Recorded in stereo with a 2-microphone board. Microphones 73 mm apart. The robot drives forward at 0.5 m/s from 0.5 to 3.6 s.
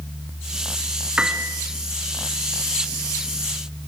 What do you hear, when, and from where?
1.2 s a piano: 15° right (ahead or behind), 1.5 m